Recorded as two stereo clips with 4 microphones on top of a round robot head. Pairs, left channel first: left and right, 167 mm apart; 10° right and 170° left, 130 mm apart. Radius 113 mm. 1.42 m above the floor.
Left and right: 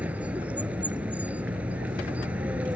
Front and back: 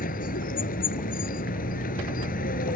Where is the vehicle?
5° right.